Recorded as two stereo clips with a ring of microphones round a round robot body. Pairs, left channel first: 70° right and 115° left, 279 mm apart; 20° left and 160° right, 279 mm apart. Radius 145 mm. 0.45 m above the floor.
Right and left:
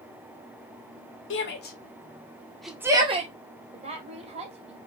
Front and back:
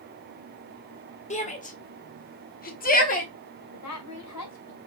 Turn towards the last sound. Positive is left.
turn(degrees=45)